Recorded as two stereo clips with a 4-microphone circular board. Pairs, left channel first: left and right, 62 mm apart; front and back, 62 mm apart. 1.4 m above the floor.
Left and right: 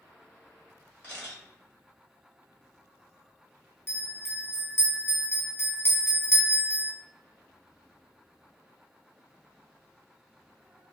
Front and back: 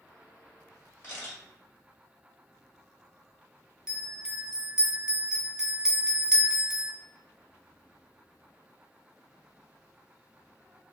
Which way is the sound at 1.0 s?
45° left.